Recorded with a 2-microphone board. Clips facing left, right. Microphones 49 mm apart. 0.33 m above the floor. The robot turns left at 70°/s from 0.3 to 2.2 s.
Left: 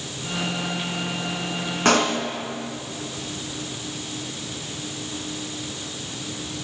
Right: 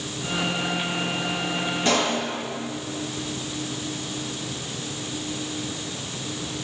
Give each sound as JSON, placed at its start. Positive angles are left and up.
{"t": 1.9, "sound": "a pop", "side_deg": 75, "distance_m": 1.2}